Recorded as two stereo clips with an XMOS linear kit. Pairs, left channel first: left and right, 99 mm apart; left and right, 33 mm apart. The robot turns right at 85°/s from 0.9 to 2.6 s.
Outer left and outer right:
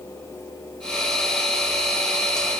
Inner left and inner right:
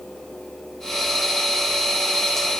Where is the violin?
No violin in this recording.